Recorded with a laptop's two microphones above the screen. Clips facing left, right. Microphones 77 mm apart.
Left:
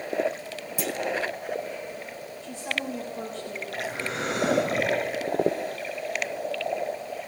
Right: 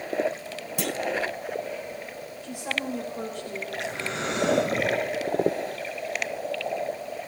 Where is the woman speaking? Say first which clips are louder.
Right 1 dB; 10° right (ahead or behind), 4 m.